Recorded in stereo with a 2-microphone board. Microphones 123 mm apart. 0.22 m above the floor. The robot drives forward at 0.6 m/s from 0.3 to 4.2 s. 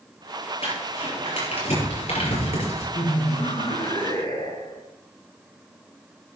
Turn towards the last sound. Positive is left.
turn(degrees=40)  # may be behind; listen again after turning